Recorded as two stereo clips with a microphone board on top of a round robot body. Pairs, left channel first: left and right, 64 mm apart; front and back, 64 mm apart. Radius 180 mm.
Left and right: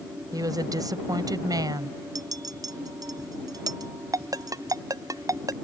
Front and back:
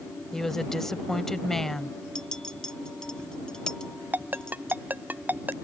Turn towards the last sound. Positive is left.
turn(degrees=-115)